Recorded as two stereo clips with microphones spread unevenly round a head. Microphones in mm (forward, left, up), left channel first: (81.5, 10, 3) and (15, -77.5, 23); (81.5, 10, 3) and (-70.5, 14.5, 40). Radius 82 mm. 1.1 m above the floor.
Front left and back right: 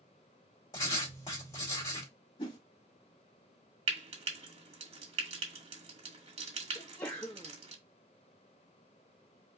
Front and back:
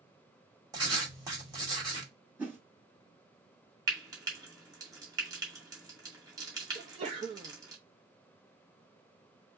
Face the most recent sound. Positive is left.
turn(degrees=125)